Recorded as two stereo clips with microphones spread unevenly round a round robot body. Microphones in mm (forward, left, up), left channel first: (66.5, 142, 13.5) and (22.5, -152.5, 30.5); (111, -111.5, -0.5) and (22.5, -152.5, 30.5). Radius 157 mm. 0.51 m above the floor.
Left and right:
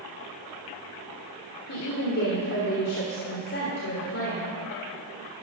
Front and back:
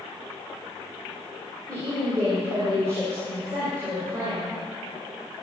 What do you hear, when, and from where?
1.7 s a woman speaking: 130° left, 1.6 m